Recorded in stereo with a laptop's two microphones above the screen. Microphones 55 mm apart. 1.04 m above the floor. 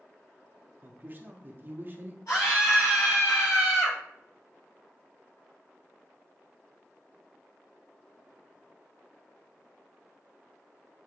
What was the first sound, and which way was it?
A man speaking, 40° right (ahead or behind).